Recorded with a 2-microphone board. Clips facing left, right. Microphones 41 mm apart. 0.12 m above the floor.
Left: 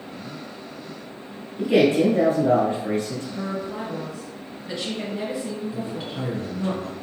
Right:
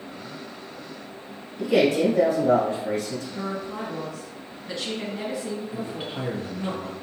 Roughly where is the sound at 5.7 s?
Right.